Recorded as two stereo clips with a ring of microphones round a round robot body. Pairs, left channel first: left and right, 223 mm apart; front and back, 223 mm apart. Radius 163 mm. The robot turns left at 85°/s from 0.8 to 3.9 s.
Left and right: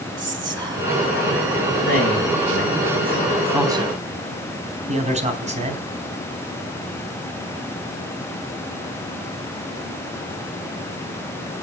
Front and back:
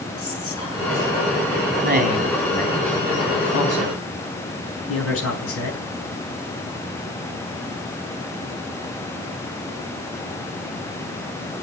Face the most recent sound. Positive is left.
turn(degrees=-30)